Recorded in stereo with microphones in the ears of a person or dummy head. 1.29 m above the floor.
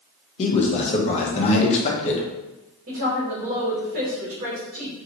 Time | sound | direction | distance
0.4 | a man speaking | 40° left (ahead or behind) | 0.9 m
2.9 | a woman speaking | 40° right (ahead or behind) | 1.1 m